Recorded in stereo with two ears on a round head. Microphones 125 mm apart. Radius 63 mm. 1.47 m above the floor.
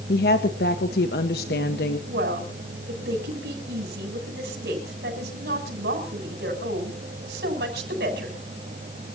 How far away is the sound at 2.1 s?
About 8 m.